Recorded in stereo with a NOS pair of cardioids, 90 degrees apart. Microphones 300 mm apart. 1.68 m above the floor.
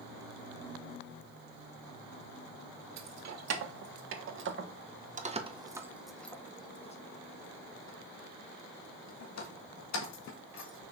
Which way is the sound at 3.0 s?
60° right.